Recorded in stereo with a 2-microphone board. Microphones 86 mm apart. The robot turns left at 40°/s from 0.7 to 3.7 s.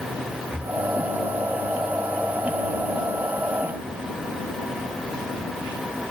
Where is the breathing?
15° right (ahead or behind).